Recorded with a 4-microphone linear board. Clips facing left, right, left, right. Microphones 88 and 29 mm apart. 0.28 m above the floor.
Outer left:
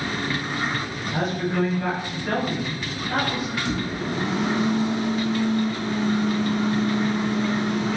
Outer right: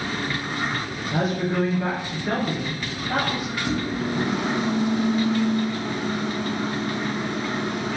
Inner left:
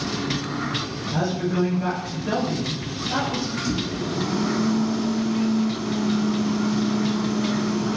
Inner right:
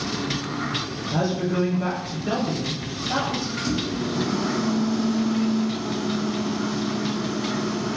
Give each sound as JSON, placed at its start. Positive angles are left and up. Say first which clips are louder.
{"t": 1.1, "sound": "a woman speaking", "louder": "outer right 1 dB, even", "side_deg": -20, "distance_m": 0.9}
{"t": 3.6, "sound": "a microwave", "louder": "outer right 1 dB, even", "side_deg": -20, "distance_m": 1.5}